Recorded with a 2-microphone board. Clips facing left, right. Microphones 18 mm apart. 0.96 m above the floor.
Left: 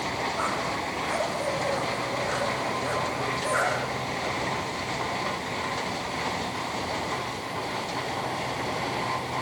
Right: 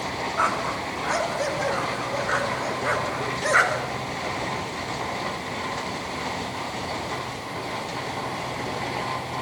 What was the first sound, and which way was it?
A dog barking, 60° right (ahead or behind).